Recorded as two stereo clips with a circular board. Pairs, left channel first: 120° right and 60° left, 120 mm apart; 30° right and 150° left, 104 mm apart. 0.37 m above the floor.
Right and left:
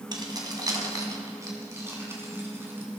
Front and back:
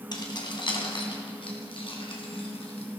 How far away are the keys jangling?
About 2 m.